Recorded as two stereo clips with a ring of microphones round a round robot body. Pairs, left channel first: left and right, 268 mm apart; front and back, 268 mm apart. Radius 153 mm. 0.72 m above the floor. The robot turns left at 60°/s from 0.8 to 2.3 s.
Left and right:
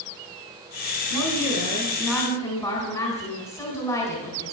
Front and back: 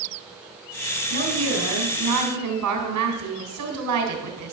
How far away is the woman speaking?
About 3 m.